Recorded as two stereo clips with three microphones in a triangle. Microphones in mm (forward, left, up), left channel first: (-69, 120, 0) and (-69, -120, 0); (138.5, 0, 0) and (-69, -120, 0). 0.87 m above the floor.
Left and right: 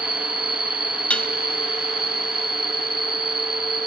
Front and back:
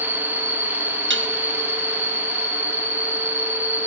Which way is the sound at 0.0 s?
130° right.